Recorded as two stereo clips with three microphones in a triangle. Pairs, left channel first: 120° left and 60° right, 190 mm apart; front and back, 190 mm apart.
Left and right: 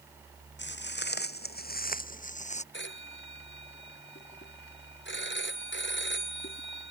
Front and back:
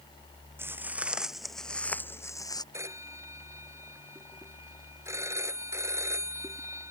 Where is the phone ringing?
105° left.